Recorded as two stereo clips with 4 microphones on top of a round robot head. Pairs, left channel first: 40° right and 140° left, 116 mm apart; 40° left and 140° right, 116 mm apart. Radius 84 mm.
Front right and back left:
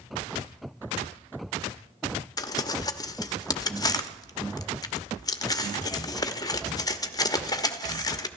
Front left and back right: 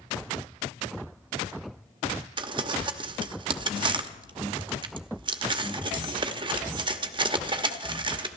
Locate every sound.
2.4 s crumpling: 95° right, 1.0 m